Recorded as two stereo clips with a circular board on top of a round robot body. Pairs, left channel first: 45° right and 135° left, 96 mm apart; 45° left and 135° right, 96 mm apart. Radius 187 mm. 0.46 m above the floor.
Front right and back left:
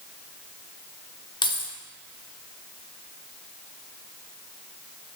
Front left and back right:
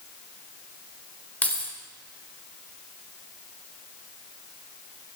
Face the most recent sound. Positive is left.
turn(degrees=-25)